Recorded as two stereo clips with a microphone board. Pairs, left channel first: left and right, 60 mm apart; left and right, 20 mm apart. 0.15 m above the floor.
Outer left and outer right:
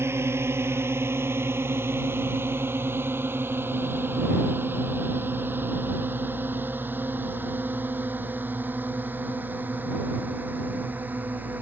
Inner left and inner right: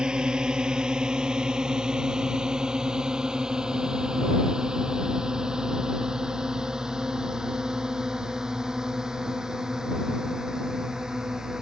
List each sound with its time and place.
0.0 s a drone: 45° right (ahead or behind); by 11.6 s 30° right (ahead or behind)